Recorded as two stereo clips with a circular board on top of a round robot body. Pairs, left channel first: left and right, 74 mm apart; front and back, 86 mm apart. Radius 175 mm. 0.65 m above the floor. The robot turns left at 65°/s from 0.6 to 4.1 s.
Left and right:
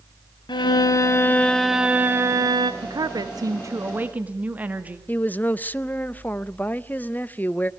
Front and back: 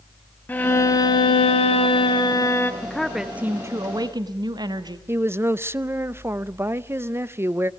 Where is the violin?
70° left, 1.2 m; by 2.7 s 65° right, 1.2 m.